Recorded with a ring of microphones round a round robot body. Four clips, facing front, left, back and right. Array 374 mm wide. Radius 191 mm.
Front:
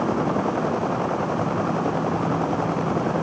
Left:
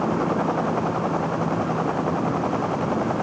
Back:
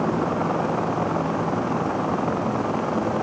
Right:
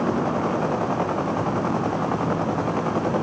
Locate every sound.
Only background noise.